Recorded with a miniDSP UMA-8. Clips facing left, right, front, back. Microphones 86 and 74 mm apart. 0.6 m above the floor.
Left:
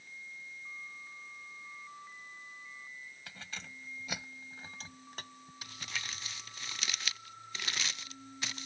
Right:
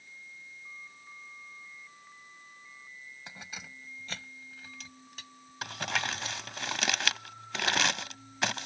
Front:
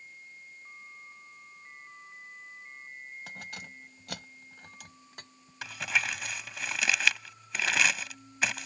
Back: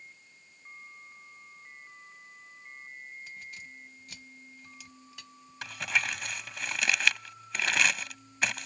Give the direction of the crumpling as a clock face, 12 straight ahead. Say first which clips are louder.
Right 11 dB, even; 3 o'clock.